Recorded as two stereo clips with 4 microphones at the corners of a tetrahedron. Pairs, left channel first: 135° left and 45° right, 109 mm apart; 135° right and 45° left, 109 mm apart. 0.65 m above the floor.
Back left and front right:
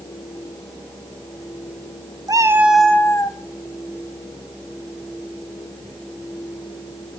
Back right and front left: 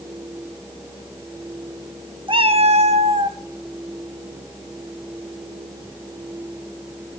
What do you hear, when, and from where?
2.3 s a cat meowing: 5° left, 0.8 m; by 3.4 s 85° left, 1.0 m